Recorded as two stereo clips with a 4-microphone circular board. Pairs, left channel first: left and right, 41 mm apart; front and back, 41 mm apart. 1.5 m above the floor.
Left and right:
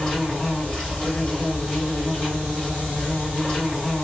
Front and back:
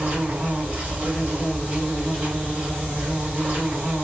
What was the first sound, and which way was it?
An insect, 160° left.